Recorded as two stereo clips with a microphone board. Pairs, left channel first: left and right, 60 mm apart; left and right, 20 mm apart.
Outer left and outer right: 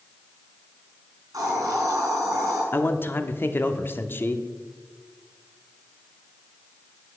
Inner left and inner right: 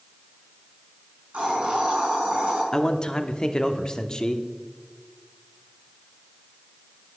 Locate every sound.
1.3 s a hiss: 75° right (ahead or behind), 5 m
2.7 s a man speaking: 35° left (ahead or behind), 0.8 m